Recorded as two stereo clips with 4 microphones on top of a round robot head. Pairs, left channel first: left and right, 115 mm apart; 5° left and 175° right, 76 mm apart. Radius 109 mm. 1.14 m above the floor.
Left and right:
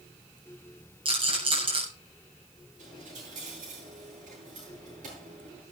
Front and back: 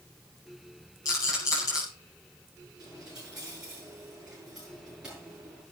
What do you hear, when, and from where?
1.1 s a rattle: 50° right, 7.5 m
2.8 s a dropped coin: 95° right, 9 m